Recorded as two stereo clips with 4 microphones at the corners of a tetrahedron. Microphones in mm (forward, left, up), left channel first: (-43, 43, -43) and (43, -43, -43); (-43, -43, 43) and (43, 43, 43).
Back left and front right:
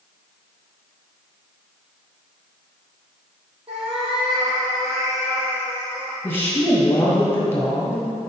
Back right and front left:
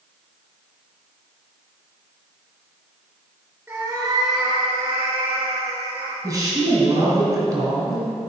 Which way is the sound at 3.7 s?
25° right.